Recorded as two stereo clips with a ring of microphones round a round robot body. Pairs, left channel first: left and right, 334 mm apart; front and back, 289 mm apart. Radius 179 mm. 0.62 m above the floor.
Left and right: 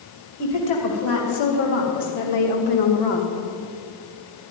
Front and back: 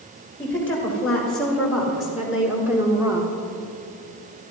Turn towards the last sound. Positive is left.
turn(degrees=105)